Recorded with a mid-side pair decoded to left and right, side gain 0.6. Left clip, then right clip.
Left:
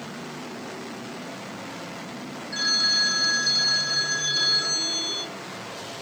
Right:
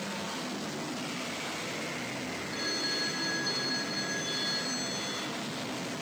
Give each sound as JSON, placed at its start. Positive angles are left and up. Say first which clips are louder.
{"t": 2.5, "sound": "a phone ringing", "louder": "left 12 dB", "azimuth_deg": 55, "distance_m": 1.4}